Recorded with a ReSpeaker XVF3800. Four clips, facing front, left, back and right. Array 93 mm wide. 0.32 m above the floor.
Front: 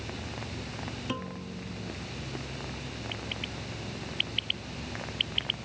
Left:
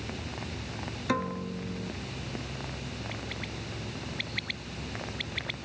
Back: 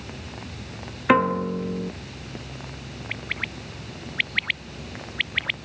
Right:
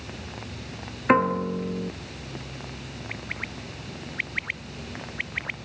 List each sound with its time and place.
1.1 s a piano: 145° right
3.1 s a bird: 155° right